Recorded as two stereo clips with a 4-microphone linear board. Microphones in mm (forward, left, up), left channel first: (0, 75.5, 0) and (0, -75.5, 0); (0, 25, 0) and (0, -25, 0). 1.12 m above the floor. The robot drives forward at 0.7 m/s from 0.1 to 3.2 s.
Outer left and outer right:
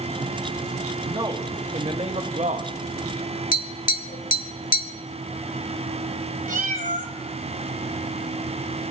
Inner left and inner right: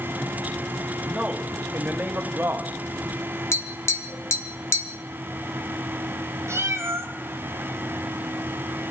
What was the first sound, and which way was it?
A man speaking, 30° right (ahead or behind).